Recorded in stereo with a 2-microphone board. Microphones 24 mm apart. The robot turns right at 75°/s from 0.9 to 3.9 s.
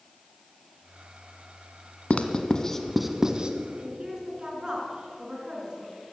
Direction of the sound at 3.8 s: 25° right (ahead or behind).